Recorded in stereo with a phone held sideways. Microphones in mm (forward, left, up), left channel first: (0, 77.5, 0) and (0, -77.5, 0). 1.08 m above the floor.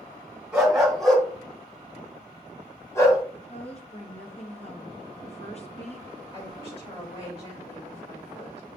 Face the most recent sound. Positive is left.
turn(degrees=35)  # may be behind; listen again after turning